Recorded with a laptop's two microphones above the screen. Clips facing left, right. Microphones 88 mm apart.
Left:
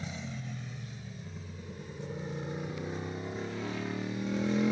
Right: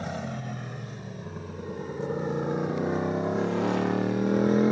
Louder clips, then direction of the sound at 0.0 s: Right 8 dB; 60° right (ahead or behind).